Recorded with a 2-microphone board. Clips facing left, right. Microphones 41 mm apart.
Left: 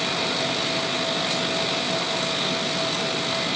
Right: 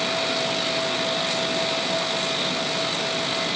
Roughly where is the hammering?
I don't hear hammering.